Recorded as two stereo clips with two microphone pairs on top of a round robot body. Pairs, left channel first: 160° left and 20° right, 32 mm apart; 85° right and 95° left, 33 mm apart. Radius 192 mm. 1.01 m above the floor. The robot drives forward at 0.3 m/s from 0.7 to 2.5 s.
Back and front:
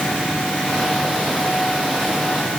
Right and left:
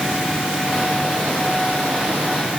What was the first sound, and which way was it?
Only background noise.